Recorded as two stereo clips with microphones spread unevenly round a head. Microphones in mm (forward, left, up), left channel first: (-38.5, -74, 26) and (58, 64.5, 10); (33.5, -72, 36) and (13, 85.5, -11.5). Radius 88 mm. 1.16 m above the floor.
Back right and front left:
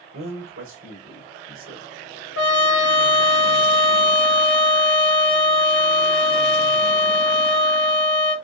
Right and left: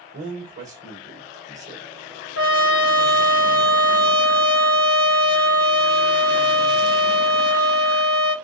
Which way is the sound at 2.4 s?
115° right.